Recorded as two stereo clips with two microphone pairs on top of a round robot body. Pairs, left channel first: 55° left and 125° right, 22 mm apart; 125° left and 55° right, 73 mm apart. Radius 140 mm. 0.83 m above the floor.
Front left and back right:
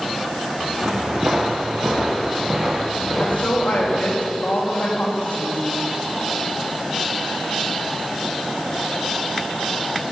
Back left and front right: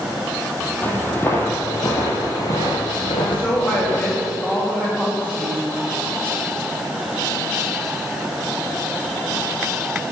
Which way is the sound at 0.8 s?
170° right.